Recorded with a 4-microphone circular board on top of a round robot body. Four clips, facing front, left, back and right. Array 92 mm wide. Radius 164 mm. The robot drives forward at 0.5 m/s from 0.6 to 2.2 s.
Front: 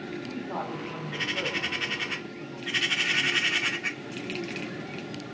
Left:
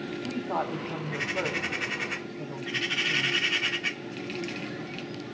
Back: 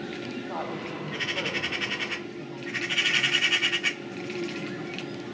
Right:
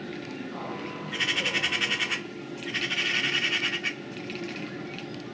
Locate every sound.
0.2 s a woman speaking: 90° left, 5.5 m; by 3.4 s 100° left, 5.5 m